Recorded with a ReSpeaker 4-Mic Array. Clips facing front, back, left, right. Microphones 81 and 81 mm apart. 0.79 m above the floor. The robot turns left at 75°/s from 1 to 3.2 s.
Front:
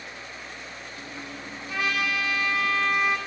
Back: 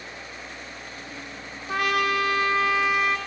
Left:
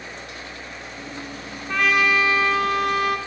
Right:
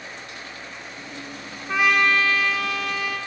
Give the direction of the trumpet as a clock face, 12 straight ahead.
5 o'clock.